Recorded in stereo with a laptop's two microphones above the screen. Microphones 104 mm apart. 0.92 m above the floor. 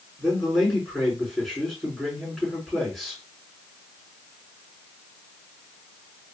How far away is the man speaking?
About 3 m.